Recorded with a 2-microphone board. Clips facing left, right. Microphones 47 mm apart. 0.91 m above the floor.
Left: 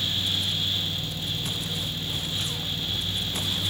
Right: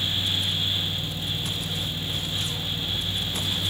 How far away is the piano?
I don't hear a piano.